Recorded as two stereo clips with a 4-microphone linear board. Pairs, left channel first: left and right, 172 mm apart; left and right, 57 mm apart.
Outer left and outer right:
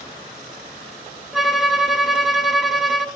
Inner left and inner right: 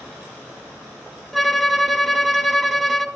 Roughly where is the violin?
Centre.